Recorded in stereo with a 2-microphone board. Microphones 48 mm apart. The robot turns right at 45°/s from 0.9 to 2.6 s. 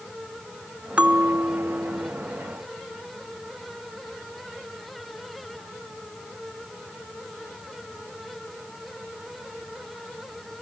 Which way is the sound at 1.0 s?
150° right.